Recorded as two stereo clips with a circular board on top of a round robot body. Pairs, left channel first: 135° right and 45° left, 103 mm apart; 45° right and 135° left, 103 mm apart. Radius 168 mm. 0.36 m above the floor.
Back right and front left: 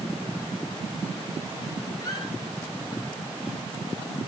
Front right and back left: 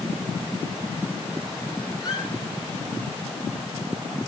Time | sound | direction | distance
2.0 | a squeak | 90° right | 5.5 m